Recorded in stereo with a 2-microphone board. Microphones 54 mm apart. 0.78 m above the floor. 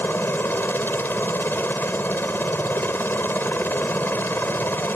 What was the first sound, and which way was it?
A helicopter, 40° left (ahead or behind).